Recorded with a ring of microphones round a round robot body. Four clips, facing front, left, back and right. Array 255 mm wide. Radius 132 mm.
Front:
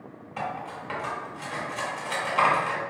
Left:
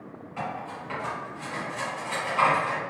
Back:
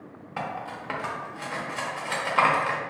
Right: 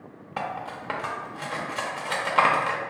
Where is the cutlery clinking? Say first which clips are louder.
Right 2 dB, even; 110° right, 0.6 m.